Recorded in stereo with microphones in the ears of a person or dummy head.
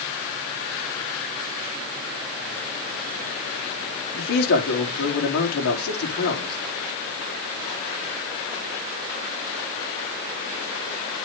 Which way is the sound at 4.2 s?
65° left (ahead or behind).